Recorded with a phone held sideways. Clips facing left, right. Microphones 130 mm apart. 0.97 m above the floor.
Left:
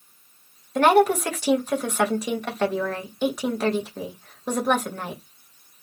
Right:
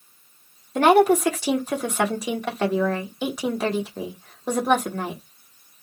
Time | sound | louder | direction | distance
0.8 | a woman speaking | right 2 dB | 5° right (ahead or behind) | 1.4 m